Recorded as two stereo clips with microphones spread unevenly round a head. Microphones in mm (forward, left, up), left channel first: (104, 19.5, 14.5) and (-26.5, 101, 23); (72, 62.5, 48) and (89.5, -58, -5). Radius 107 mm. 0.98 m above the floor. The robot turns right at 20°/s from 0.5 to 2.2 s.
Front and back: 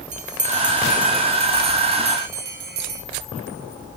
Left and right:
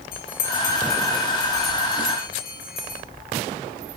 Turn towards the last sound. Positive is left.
turn(degrees=145)